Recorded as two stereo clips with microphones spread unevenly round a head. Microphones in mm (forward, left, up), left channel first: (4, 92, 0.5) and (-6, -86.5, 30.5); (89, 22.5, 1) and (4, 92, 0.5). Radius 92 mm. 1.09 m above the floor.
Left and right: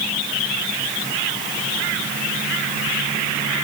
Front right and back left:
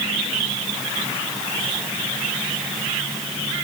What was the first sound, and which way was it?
Only background noise.